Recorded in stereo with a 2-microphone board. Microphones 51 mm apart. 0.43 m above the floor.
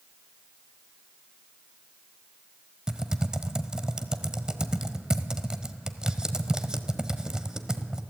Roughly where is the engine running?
I don't hear an engine running.